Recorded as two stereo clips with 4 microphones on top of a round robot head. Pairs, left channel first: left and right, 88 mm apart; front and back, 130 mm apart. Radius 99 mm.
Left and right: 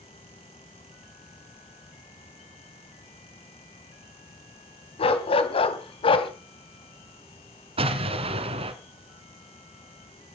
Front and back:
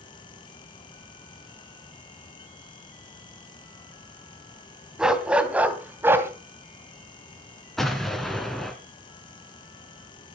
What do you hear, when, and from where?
5.0 s a dog barking: 95° left, 2.5 m; by 6.3 s 105° left, 2.5 m
7.8 s an explosion: 90° right, 1.8 m